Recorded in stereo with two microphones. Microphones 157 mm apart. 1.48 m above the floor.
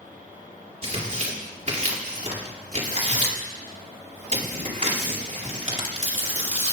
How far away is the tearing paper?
About 4 m.